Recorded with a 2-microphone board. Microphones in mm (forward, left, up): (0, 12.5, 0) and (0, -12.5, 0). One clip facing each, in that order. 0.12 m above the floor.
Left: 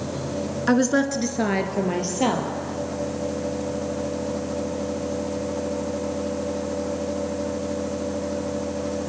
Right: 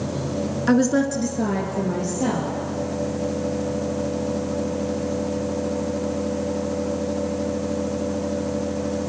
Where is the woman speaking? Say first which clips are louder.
Right 1 dB; 5° left (ahead or behind), 1.2 m; by 2.5 s 65° left (ahead or behind), 3 m.